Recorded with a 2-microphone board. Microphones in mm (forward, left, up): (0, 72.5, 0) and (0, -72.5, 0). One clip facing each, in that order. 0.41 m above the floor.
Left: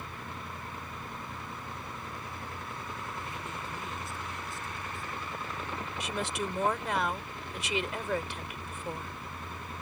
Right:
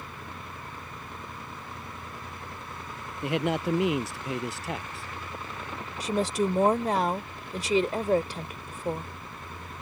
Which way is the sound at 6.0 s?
35° right (ahead or behind).